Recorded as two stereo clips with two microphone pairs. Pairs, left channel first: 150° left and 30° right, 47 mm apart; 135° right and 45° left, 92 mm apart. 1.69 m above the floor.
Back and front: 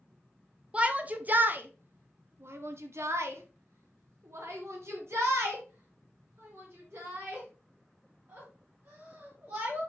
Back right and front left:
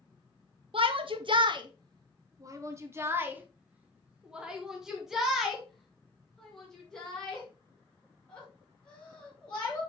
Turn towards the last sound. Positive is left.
turn(degrees=-60)